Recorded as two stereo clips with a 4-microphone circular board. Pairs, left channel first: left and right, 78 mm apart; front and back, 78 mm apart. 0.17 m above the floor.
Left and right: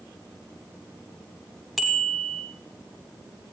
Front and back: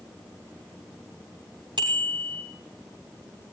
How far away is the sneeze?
No sneeze in this recording.